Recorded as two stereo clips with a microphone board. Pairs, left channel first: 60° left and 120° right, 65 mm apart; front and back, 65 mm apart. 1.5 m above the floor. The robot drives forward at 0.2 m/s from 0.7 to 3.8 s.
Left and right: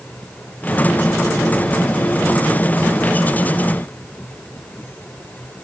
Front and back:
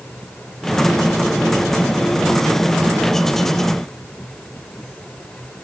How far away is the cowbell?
I don't hear a cowbell.